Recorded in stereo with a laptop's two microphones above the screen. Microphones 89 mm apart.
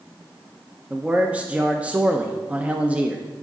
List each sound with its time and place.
0.9 s a man speaking: 15° right (ahead or behind), 0.6 m